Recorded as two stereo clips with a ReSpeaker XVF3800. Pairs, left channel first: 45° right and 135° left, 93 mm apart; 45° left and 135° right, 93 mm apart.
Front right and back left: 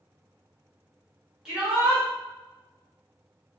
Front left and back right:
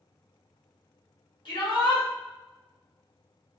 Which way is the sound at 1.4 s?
50° left.